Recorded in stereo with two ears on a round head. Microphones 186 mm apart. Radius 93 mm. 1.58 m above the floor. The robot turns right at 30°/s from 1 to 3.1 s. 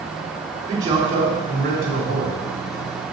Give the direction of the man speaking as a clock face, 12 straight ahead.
5 o'clock.